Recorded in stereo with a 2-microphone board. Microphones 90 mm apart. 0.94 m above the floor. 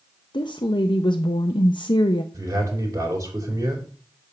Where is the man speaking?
40° right (ahead or behind), 3 m.